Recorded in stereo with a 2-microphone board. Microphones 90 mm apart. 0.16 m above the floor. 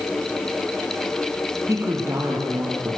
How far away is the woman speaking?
About 5.5 m.